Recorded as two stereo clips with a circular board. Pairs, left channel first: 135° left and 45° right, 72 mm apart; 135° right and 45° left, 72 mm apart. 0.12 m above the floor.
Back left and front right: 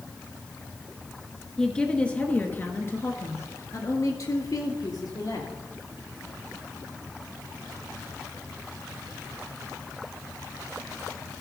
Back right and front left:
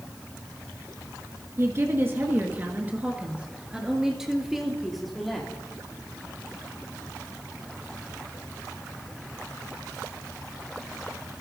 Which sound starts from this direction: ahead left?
A woman speaking, at 1.6 s.